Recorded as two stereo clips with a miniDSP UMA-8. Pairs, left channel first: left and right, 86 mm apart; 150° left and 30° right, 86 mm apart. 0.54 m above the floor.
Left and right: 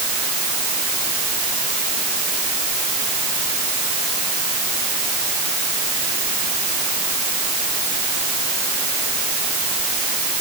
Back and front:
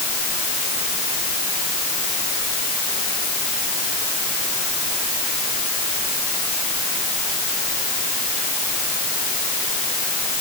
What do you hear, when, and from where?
Only background noise.